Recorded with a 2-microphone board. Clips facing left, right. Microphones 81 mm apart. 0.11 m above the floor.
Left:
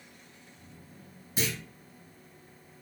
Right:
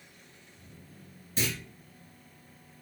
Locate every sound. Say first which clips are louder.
1.4 s a clunk: even; 10° left (ahead or behind), 1.7 m